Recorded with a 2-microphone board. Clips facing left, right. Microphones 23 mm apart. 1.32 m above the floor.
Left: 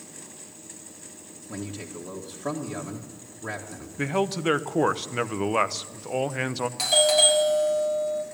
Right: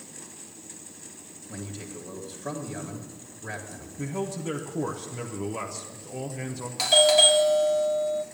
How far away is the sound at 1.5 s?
About 1.8 m.